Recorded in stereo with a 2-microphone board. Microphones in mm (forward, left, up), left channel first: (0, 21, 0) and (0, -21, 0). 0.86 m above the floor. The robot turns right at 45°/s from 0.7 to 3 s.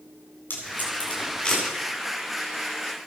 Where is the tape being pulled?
50° left (ahead or behind), 8.5 m; by 1.6 s 5° left (ahead or behind), 8.5 m.